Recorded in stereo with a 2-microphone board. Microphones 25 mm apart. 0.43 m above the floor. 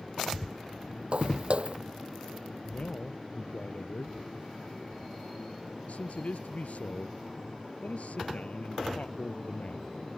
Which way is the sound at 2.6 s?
75° left (ahead or behind).